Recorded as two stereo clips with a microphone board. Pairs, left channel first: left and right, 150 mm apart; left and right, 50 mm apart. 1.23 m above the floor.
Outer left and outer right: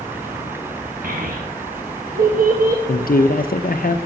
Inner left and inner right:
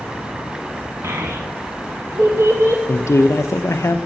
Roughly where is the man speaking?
Left.